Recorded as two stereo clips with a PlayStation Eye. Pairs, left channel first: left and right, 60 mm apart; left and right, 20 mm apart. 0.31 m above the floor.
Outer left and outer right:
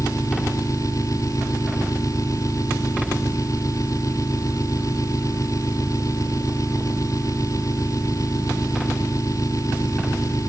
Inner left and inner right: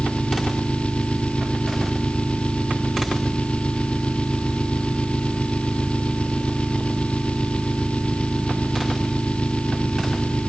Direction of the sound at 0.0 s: 65° left (ahead or behind).